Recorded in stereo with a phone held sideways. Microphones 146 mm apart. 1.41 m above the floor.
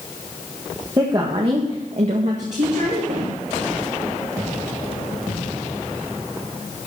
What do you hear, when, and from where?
1.0 s a woman speaking: 30° right (ahead or behind), 1.5 m; by 3.3 s 70° right (ahead or behind), 2.5 m